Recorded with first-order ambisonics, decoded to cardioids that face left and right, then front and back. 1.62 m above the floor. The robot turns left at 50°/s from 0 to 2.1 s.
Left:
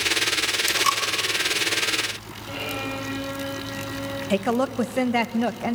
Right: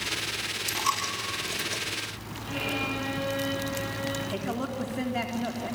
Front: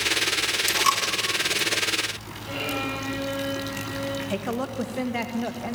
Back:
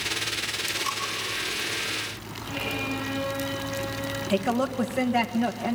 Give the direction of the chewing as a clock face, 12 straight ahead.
I don't hear chewing.